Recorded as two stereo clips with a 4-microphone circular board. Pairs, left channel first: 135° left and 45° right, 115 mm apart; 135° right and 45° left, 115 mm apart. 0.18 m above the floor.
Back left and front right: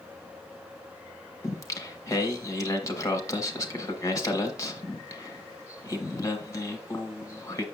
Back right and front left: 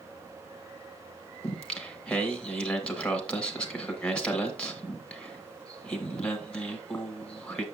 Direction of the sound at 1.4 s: 150° left.